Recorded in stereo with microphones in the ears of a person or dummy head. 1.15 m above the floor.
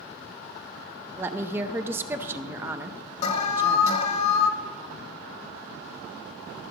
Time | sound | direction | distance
1.2 | a woman speaking | 15° right (ahead or behind) | 0.5 m
3.2 | an alarm | 40° left (ahead or behind) | 1.2 m